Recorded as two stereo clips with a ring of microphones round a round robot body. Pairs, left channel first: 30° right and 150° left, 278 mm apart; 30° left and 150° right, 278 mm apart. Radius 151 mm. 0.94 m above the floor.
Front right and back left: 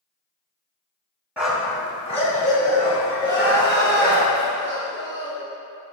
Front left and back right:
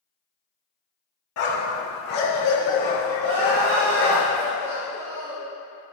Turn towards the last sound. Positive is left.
turn(degrees=-105)